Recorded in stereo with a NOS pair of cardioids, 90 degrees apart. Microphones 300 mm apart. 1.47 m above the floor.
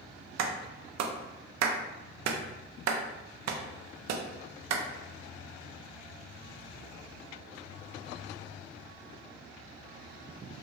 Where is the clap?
65° right, 0.7 m.